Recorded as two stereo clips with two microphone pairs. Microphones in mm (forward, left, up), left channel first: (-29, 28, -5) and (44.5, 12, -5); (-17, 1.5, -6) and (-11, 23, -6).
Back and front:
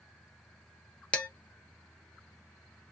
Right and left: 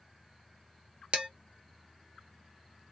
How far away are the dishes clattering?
About 0.7 m.